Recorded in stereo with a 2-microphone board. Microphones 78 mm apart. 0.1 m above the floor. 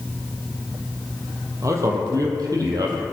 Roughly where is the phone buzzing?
No phone buzzing in this recording.